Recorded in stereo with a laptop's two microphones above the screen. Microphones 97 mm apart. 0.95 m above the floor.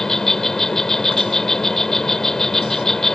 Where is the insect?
5° left (ahead or behind).